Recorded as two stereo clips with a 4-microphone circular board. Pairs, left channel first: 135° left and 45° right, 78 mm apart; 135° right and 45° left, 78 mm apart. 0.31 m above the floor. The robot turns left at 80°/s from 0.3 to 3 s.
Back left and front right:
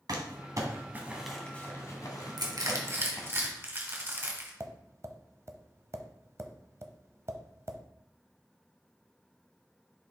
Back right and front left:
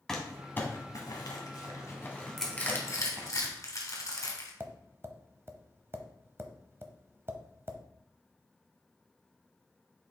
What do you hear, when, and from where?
0.1 s crumpling: 55° right, 1.5 m; by 3.3 s 90° left, 1.5 m
2.4 s crushing: 45° right, 2 m; by 4.5 s 95° right, 2 m
4.6 s tapping: 5° right, 0.7 m